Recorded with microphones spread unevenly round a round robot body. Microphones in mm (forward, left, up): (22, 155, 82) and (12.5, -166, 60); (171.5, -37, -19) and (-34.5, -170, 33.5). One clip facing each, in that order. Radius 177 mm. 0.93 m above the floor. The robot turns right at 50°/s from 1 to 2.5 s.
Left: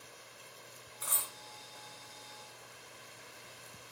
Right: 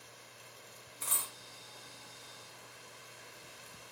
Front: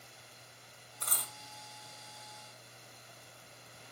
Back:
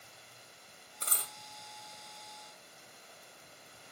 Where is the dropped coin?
140° right, 0.7 m; by 1.3 s 125° right, 0.7 m.